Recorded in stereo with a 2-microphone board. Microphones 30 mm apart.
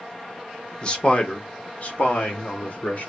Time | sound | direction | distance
0.8 | a man speaking | 30° left (ahead or behind) | 1.2 m